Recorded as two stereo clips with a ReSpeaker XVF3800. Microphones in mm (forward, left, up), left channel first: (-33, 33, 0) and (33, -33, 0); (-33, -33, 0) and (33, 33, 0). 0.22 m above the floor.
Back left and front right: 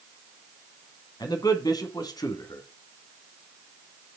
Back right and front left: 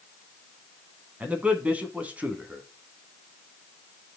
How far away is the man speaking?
About 2 m.